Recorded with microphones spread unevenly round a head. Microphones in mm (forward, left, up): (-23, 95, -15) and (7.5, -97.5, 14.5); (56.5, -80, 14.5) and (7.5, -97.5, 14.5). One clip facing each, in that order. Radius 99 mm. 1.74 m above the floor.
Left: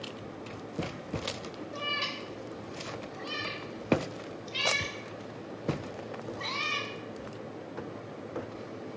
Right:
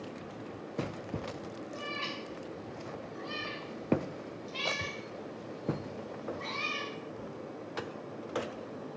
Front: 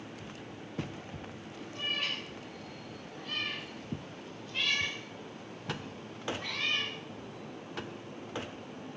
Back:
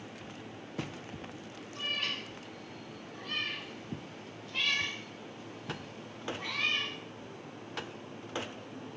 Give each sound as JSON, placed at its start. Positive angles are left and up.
{"t": 1.7, "sound": "a cat meowing", "azimuth_deg": 85, "distance_m": 2.0}